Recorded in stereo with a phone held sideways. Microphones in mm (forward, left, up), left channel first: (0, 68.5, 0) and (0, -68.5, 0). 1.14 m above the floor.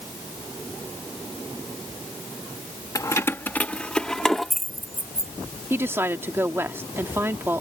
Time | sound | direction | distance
3.0 | keys jangling | 25° left (ahead or behind) | ?
5.7 | a woman speaking | 15° right (ahead or behind) | ?